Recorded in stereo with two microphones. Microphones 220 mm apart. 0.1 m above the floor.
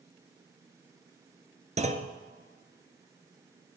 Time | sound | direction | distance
1.8 | a clunk | 30° right (ahead or behind) | 1.2 m